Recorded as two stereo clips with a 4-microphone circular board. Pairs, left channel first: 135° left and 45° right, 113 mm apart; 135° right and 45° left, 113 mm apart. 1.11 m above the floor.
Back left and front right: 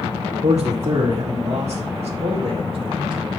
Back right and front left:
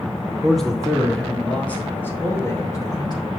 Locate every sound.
0.4 s a man speaking: 45° right, 3 m; by 3.3 s 90° right, 1.8 m